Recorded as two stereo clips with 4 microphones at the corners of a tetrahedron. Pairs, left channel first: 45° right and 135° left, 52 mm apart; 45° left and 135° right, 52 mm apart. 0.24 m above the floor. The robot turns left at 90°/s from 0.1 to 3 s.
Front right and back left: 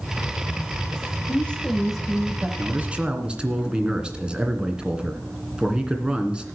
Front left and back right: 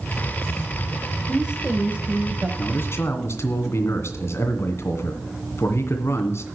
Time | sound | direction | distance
1.3 | a woman speaking | 70° right | 1.2 m
2.6 | a man speaking | 100° left | 2 m